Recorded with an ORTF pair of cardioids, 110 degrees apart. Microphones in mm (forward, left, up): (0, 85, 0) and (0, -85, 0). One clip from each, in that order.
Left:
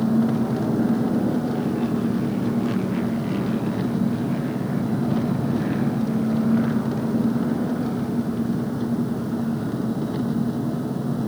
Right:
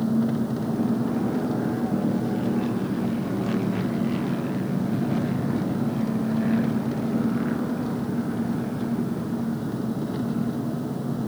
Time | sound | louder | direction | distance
0.0 | an engine running | left 3 dB | 15° left | ?